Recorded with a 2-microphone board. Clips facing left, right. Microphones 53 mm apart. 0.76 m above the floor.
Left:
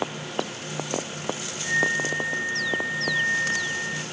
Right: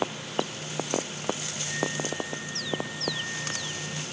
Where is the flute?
45° left (ahead or behind).